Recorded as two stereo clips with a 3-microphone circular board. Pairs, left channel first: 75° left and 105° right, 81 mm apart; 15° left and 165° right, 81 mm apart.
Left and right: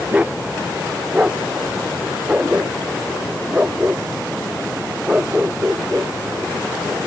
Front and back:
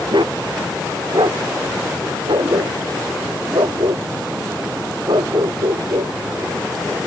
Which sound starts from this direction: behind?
A dog barking, at 0.1 s.